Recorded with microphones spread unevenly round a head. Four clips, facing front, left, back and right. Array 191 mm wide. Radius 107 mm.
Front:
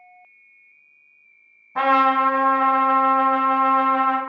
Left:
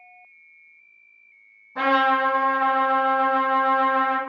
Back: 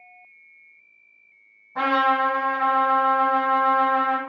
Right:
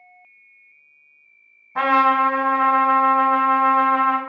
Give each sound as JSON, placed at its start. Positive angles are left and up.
{"t": 1.8, "sound": "a trumpet", "azimuth_deg": -35, "distance_m": 1.5}